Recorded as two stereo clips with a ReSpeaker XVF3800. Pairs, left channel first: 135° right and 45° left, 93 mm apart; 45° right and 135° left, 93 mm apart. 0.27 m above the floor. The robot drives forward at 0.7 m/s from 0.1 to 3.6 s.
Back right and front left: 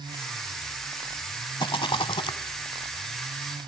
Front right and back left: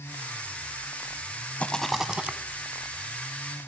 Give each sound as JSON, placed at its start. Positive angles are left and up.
{"t": 1.6, "sound": "a rattle", "azimuth_deg": -120, "distance_m": 0.6}